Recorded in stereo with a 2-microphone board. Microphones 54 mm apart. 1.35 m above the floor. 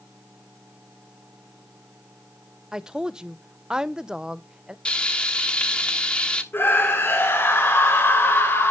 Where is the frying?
20° left (ahead or behind), 1.1 m.